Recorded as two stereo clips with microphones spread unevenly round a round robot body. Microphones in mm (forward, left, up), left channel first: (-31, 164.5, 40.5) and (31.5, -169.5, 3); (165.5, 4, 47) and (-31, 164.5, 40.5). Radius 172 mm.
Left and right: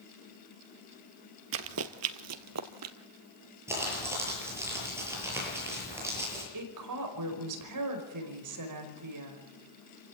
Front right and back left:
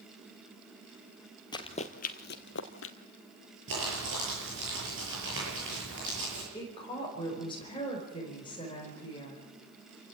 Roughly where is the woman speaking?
Behind right.